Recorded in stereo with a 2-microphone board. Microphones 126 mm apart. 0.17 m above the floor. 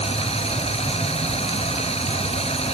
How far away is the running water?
About 1.7 m.